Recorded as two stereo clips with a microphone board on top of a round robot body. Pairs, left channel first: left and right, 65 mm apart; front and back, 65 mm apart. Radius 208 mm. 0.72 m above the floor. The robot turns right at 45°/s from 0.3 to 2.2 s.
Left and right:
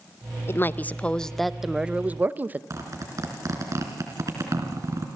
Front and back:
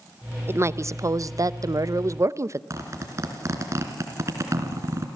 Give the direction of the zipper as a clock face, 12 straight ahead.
4 o'clock.